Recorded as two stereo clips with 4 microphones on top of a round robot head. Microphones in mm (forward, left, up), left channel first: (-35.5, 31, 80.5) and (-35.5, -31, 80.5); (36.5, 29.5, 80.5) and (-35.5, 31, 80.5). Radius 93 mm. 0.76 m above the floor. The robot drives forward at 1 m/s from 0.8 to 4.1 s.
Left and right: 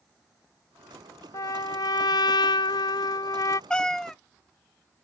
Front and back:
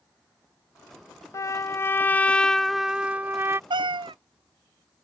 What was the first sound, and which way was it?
A trumpet, 45° left.